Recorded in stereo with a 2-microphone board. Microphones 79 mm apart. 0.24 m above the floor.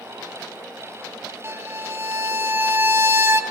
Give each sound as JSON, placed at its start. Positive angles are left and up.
{"t": 1.4, "sound": "a violin", "side_deg": -40, "distance_m": 0.6}